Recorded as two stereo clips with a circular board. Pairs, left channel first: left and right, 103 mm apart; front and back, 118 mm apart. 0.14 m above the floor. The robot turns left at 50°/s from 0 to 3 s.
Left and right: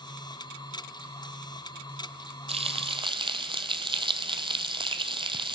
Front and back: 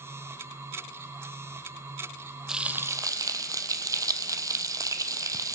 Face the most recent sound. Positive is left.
turn(degrees=-120)